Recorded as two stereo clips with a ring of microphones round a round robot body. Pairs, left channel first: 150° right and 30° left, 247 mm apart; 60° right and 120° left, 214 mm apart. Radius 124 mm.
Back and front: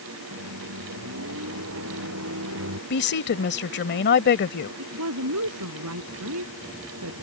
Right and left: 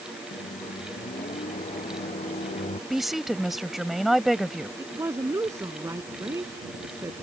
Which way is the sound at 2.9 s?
150° right.